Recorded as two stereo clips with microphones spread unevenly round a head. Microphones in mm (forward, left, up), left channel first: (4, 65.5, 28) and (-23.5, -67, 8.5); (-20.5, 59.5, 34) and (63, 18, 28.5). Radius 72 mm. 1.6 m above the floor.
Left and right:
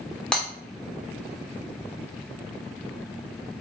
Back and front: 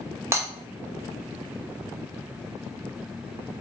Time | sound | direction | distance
0.3 | breaking glass | 15° left | 1.3 m